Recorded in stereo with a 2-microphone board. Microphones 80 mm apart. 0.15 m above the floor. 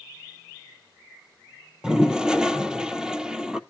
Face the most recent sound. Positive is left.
turn(degrees=-10)  # may be behind; listen again after turning